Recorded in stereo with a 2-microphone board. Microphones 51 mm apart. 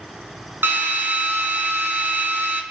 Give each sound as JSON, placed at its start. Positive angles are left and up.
{"t": 0.6, "sound": "a drill", "side_deg": -50, "distance_m": 2.5}